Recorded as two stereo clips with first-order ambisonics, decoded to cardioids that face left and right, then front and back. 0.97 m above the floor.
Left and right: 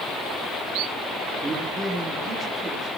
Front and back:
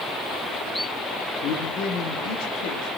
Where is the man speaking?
20° right, 2.5 m.